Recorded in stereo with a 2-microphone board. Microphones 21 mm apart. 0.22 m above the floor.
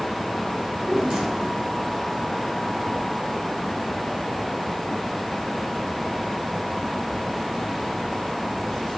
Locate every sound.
0.6 s a drawer: 45° right (ahead or behind), 4.5 m